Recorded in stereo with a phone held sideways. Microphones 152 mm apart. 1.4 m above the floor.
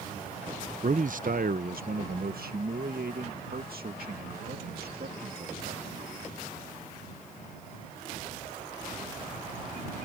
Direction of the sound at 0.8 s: 55° right (ahead or behind).